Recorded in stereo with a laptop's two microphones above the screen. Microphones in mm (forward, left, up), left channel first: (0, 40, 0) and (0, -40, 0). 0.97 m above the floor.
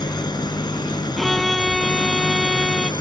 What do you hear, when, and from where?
0.0 s an engine running: 65° left (ahead or behind)
1.2 s a violin: centre (ahead or behind)